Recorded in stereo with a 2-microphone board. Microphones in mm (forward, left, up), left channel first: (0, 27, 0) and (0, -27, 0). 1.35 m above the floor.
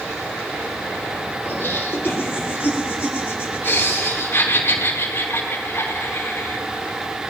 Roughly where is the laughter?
Left.